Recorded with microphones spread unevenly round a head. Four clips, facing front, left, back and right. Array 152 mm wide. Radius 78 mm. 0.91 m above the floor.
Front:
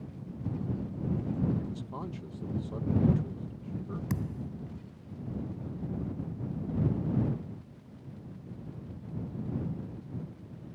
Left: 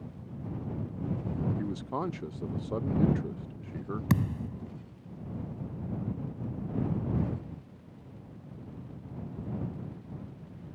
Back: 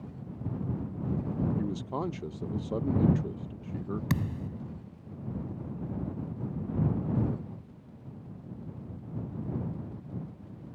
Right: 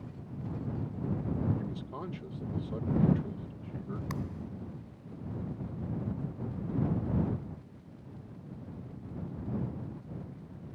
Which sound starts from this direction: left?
A thud, at 4.1 s.